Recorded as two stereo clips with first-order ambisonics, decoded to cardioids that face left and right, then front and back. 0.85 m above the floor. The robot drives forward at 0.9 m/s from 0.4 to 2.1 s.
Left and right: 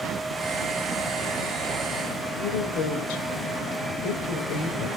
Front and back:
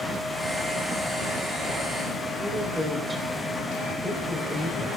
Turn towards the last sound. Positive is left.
turn(degrees=100)